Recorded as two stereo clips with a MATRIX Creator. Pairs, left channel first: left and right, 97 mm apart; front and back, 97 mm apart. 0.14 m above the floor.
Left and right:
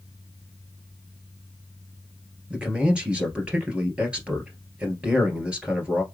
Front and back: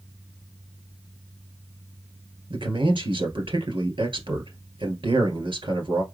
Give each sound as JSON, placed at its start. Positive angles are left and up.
{"t": 2.5, "sound": "a man speaking", "azimuth_deg": -170, "distance_m": 1.9}